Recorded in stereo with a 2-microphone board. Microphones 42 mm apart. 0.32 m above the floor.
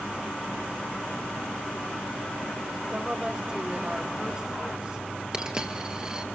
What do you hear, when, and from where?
2.9 s a woman speaking: 25° right (ahead or behind), 1.2 m
5.3 s a dropped coin: 20° right (ahead or behind), 1.3 m